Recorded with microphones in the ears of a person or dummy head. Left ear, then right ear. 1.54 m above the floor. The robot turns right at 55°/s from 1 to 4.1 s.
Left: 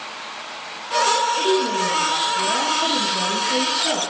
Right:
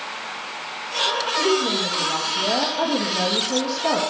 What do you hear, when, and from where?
1.4 s a woman speaking: 160° left, 2.5 m; by 4.0 s 55° right, 2.5 m